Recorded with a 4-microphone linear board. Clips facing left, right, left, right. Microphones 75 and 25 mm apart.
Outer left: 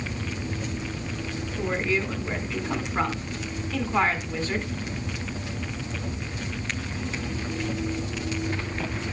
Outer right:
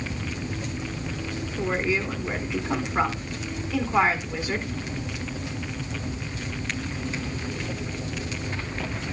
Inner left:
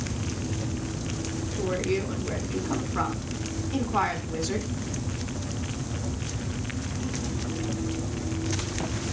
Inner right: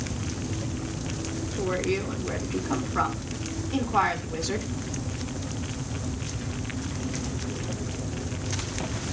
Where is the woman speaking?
10° right (ahead or behind), 1.5 m.